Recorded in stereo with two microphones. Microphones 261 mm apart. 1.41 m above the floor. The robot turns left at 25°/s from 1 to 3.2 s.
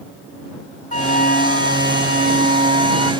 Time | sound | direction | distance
0.9 | a flute | 155° left | ?